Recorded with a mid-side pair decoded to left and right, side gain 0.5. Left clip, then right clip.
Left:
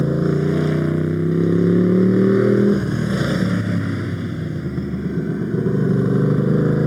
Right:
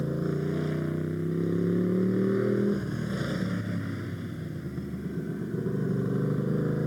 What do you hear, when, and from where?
0.0 s a motorcycle: 55° left